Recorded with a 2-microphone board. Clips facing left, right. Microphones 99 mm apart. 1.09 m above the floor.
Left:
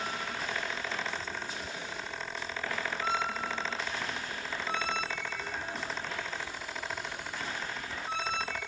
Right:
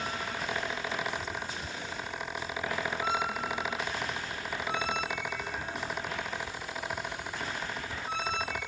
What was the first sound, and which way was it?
Only background noise.